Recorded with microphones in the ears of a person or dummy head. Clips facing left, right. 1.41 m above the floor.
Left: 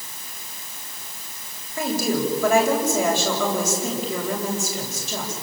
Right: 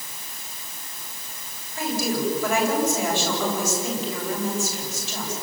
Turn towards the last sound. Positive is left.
turn(degrees=50)  # may be behind; listen again after turning